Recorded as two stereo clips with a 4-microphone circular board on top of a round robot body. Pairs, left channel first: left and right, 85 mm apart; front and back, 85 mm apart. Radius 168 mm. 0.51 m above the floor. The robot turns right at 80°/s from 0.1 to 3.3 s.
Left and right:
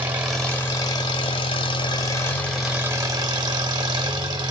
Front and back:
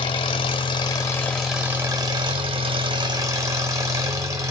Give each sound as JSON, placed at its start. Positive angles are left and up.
{"t": 0.0, "sound": "an engine running", "azimuth_deg": -20, "distance_m": 1.1}